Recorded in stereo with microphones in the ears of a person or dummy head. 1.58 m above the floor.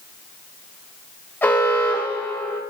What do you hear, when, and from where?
1.4 s an alarm: 15° left (ahead or behind), 2 m